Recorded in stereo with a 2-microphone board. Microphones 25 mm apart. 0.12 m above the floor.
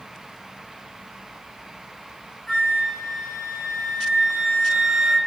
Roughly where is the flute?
Left.